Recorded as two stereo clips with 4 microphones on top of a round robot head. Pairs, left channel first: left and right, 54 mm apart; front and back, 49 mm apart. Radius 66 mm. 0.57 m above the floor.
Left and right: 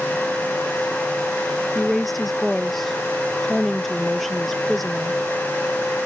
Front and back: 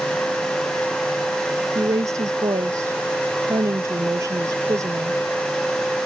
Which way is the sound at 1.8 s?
175° left.